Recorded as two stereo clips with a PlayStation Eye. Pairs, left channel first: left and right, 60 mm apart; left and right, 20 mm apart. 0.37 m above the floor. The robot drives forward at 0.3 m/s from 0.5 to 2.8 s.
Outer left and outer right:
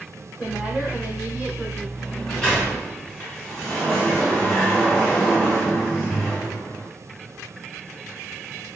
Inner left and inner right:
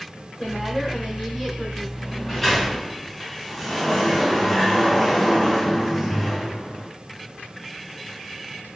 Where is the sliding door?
5° left (ahead or behind), 1.7 m.